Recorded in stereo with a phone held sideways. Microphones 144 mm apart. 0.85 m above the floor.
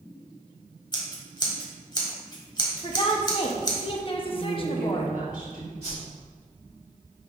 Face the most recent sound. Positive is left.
turn(degrees=-45)  # may be behind; listen again after turning